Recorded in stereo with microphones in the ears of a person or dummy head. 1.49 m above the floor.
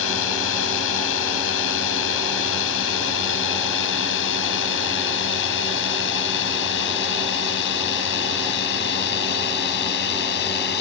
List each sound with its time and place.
0.0 s a drone: 80° left; by 10.8 s 65° left (ahead or behind)